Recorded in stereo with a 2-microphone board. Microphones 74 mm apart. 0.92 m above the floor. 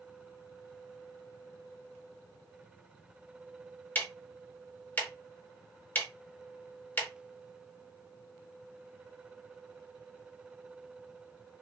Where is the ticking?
25° left (ahead or behind), 0.7 m.